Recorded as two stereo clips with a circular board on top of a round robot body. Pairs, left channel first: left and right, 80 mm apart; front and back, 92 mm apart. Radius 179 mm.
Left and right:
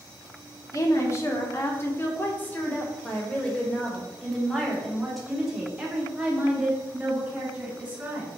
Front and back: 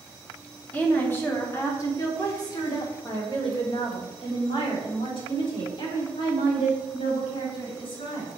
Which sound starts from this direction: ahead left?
A woman speaking, at 0.7 s.